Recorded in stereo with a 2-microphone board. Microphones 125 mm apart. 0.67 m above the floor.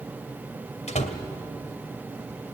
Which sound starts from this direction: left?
A door slam, at 0.9 s.